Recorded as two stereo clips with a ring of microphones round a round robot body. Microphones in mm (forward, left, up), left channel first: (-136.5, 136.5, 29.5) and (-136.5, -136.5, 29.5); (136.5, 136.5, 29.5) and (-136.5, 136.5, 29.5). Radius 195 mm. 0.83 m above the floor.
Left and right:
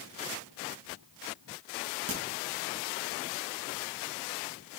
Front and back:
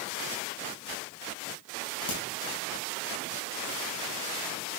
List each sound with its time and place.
2.1 s a crack: 35° right, 2.5 m